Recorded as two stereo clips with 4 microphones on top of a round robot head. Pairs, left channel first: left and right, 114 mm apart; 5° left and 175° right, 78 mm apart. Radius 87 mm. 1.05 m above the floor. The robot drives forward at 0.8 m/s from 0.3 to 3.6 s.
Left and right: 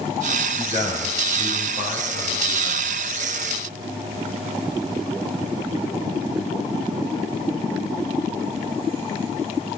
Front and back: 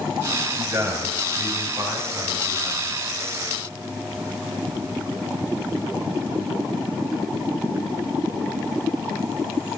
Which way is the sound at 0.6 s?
125° left.